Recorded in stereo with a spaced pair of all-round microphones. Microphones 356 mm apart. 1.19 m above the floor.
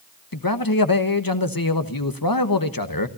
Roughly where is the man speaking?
Left.